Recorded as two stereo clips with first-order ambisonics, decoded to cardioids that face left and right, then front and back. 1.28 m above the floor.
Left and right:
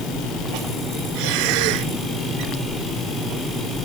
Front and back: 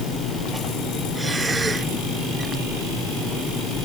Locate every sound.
1.1 s breathing: 100° right